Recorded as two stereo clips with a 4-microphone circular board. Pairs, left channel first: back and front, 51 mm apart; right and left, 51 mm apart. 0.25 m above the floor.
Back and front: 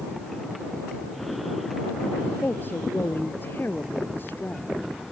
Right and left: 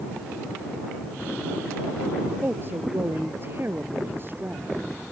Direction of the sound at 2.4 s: 135° left.